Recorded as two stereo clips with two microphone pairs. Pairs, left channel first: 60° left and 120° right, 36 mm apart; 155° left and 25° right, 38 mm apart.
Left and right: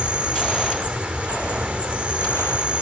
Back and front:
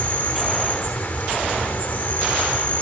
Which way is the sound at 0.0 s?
175° right.